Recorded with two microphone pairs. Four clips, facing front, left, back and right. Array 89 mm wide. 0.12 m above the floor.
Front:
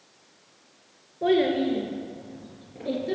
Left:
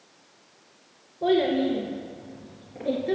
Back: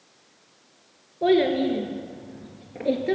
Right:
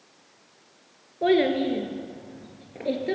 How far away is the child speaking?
About 1.4 m.